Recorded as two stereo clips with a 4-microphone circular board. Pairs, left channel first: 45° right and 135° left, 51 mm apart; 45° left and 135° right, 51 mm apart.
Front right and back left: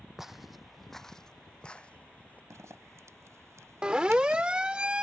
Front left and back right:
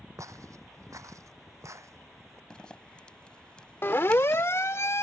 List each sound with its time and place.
0.2 s footsteps: 145° right; by 2.4 s 110° right
2.5 s a zipper: 115° left
3.8 s a siren: 65° left